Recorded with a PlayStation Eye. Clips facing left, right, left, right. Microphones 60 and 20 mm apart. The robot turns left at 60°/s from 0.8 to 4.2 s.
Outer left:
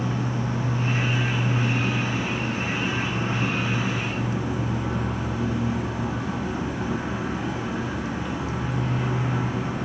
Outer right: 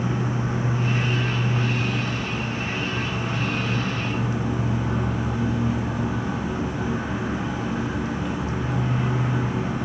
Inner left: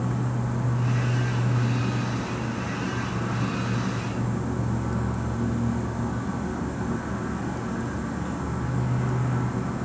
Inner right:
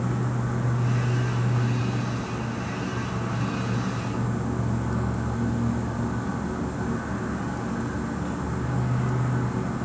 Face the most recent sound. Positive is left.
turn(degrees=0)